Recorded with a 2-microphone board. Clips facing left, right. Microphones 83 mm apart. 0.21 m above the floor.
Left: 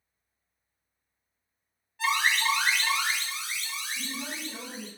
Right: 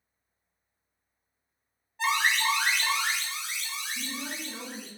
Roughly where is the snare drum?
I don't hear a snare drum.